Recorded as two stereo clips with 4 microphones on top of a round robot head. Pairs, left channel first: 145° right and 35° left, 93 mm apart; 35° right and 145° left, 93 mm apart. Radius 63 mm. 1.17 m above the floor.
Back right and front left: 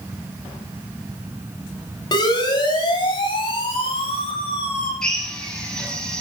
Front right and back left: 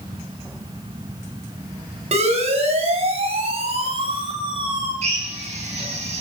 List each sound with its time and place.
2.1 s a siren: 165° left, 8 m; by 4.9 s 170° right, 7 m
5.0 s a drill: 130° left, 7 m